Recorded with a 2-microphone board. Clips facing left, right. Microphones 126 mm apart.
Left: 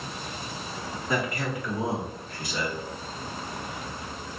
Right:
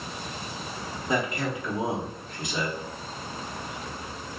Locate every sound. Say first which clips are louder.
1.1 s a man speaking: right 1 dB; 20° right (ahead or behind), 1.1 m